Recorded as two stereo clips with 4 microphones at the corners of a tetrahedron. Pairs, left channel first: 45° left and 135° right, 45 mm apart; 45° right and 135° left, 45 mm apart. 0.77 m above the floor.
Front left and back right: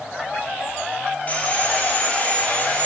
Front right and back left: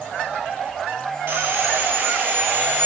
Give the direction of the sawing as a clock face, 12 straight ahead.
9 o'clock.